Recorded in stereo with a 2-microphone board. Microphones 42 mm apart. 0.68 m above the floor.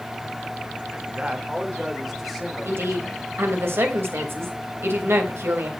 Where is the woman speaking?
75° right (ahead or behind), 3.5 m.